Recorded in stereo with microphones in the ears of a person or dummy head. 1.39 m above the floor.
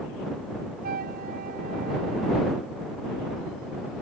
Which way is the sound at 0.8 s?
50° right (ahead or behind).